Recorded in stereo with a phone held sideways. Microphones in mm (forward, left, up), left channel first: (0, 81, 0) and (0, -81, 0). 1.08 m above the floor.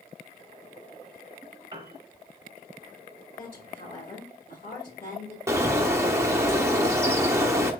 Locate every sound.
1.7 s a piano: 30° right (ahead or behind), 1.1 m
3.4 s a woman speaking: 70° left (ahead or behind), 3 m
5.5 s a bird: 15° right (ahead or behind), 0.7 m